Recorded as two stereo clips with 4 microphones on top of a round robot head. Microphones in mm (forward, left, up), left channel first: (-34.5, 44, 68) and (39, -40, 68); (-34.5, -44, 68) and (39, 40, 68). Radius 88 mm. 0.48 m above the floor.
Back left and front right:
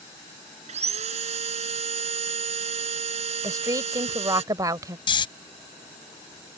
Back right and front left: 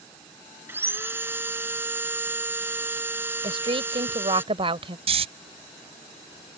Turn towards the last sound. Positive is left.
turn(degrees=85)